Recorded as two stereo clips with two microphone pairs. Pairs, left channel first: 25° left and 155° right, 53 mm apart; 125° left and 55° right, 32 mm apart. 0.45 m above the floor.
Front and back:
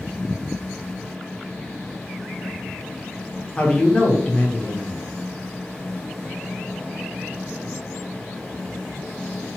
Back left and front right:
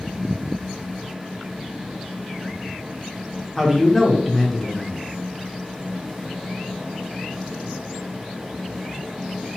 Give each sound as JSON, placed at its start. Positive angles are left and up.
{"t": 3.6, "sound": "a man speaking", "azimuth_deg": 40, "distance_m": 0.7}